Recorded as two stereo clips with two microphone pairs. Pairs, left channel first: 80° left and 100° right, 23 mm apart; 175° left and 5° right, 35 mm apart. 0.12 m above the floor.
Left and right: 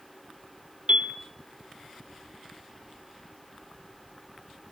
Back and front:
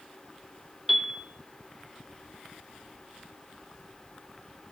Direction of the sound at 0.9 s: 85° right.